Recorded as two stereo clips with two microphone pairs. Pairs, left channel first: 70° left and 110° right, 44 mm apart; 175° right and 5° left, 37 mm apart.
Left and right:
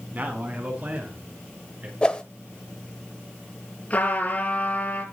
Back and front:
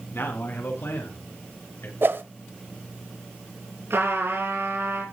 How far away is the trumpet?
About 6 m.